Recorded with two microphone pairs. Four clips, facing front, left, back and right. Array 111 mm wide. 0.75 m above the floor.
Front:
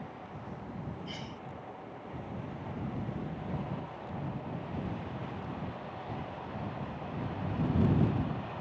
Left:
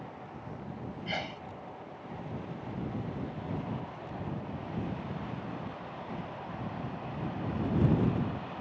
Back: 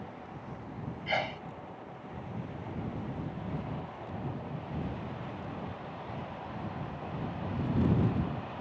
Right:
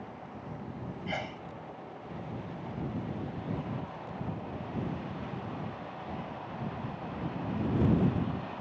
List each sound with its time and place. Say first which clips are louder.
1.1 s a sneeze: right 1 dB, back 10 dB; straight behind